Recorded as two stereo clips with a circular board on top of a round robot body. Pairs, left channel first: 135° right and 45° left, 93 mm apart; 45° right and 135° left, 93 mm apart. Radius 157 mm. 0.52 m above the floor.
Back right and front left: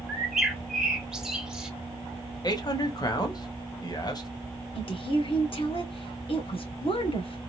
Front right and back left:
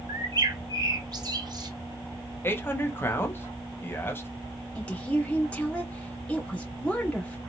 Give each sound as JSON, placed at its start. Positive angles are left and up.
{"t": 0.1, "sound": "a bird", "azimuth_deg": 125, "distance_m": 1.6}
{"t": 2.4, "sound": "a man speaking", "azimuth_deg": -105, "distance_m": 1.7}
{"t": 4.8, "sound": "a woman speaking", "azimuth_deg": -120, "distance_m": 2.5}